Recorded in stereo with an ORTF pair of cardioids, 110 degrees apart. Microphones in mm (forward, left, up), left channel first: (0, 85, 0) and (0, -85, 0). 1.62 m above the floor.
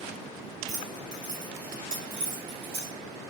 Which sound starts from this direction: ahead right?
Keys jangling, at 0.7 s.